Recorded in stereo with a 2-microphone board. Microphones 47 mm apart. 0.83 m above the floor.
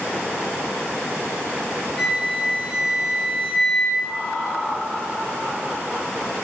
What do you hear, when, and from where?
2.0 s a flute: 10° right (ahead or behind), 0.7 m
4.0 s laughter: 35° left (ahead or behind), 1.4 m